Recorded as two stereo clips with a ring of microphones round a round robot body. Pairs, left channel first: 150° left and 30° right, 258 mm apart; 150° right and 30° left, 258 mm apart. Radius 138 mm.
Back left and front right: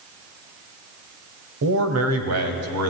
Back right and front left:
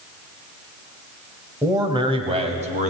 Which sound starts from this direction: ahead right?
A man speaking, at 1.6 s.